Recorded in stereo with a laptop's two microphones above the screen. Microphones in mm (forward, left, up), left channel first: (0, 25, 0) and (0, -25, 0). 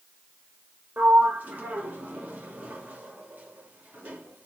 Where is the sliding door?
30° right (ahead or behind), 1.5 m.